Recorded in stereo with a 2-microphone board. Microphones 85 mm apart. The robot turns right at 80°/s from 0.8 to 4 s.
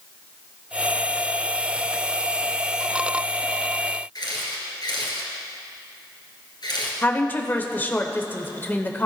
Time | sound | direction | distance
4.2 | a camera shutter | 60° left (ahead or behind) | 2 m
7.0 | a woman speaking | 25° left (ahead or behind) | 1.0 m